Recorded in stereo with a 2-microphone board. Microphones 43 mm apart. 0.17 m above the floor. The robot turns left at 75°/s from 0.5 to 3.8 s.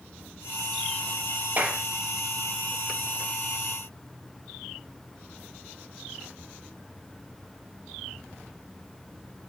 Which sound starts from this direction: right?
A clap, at 1.6 s.